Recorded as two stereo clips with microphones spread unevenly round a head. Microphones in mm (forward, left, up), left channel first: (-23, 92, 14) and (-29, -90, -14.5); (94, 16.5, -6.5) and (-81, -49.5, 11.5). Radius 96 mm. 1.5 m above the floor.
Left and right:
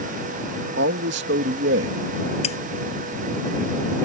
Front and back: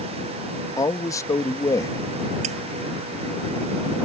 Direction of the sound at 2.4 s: 145° left.